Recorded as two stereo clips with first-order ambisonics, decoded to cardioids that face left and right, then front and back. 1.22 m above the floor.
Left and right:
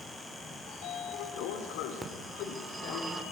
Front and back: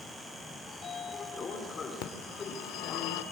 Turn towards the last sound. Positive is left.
turn(degrees=-10)